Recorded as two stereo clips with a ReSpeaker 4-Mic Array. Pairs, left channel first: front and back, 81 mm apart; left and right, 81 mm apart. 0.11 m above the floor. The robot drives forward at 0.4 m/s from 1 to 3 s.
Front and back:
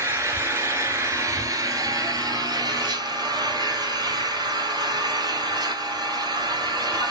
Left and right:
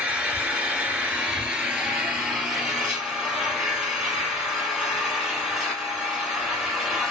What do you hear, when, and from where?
0.0 s an engine running: 155° right, 0.9 m; by 7.1 s 170° right, 1.5 m